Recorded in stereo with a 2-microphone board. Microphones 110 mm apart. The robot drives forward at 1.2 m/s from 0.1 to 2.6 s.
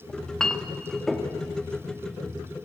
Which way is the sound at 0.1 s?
5° left (ahead or behind).